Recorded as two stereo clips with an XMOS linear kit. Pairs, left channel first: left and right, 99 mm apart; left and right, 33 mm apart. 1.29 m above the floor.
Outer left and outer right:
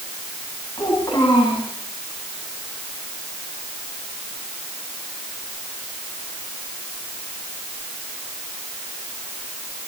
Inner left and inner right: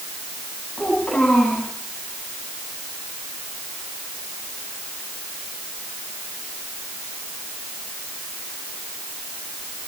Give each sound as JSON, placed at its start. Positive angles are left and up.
{"t": 0.8, "sound": "a child speaking", "side_deg": 40, "distance_m": 8.5}